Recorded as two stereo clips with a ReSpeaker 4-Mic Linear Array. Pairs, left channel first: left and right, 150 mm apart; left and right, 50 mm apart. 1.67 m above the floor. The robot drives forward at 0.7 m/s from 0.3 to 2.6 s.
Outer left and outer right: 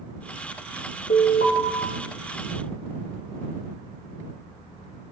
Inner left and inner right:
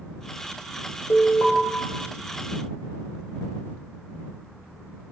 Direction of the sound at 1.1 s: 65° left (ahead or behind).